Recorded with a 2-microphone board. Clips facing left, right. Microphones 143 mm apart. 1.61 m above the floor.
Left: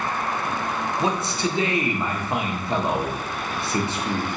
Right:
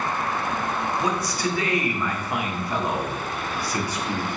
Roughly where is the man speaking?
Left.